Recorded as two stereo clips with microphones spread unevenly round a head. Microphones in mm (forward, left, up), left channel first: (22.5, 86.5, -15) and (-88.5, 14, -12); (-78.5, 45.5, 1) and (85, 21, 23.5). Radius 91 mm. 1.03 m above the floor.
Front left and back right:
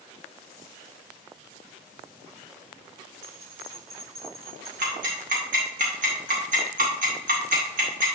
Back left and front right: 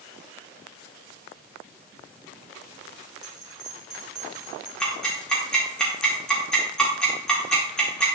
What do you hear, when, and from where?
3.2 s a bell: 95° right, 3.5 m
4.8 s ticking: 100° right, 1.7 m